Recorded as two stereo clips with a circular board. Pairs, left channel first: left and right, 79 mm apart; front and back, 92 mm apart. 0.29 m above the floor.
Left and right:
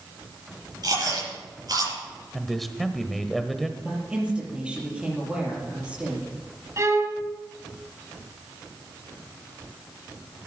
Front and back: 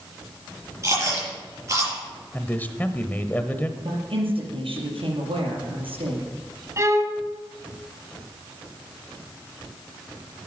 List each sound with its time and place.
0.8 s chewing: 125° right, 7.5 m
2.3 s a man speaking: straight ahead, 1.0 m
3.8 s a woman speaking: 165° right, 6 m
6.8 s a violin: 130° right, 1.5 m